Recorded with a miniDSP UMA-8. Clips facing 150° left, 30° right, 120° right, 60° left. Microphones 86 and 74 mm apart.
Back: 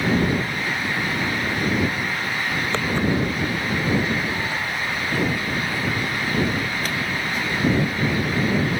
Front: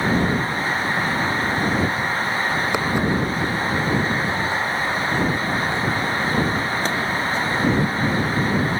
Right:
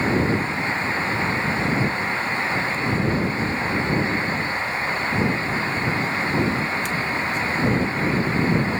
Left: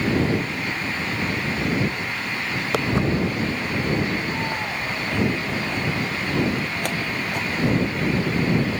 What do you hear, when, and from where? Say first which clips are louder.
2.7 s footsteps: back 2 dB, left 1 dB; 50° left; by 8.6 s 25° left